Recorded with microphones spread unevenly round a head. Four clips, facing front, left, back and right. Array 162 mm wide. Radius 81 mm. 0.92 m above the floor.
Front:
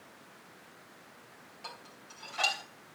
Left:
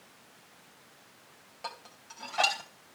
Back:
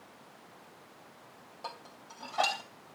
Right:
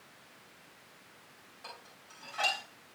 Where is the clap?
No clap in this recording.